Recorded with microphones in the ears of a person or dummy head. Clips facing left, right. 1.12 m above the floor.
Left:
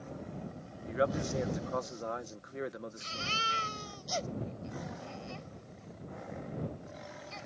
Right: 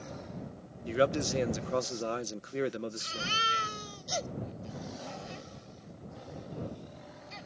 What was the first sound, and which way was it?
A man speaking, 35° right (ahead or behind).